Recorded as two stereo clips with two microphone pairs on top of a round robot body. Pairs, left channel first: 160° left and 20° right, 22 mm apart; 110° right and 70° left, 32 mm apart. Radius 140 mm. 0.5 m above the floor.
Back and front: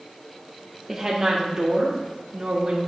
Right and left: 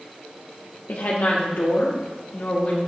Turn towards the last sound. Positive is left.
turn(degrees=-60)